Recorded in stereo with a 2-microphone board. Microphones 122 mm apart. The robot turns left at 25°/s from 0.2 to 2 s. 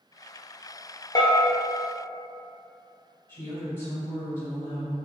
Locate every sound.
1.1 s a bell: 30° left (ahead or behind), 0.6 m
3.3 s a woman speaking: 20° left (ahead or behind), 1.9 m